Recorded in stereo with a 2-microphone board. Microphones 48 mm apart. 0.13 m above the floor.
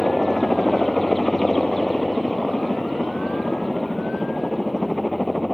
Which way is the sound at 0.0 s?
5° left (ahead or behind).